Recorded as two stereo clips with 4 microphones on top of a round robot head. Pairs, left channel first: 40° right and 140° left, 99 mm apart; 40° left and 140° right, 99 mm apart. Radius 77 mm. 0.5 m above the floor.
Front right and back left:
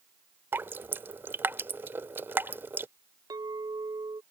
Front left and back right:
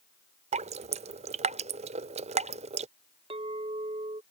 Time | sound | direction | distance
0.5 | dripping | 150° right | ?
3.3 | a clink | 170° right | ?